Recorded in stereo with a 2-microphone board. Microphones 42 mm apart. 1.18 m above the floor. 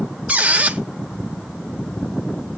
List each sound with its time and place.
0.3 s a squeak: 35° right (ahead or behind), 1.0 m